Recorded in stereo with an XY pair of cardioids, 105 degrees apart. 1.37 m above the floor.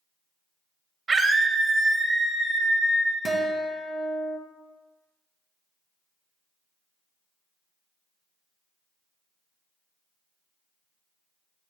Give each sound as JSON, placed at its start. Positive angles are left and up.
{"t": 1.1, "sound": "a scream", "azimuth_deg": -40, "distance_m": 1.1}
{"t": 3.2, "sound": "a guitar", "azimuth_deg": -30, "distance_m": 0.8}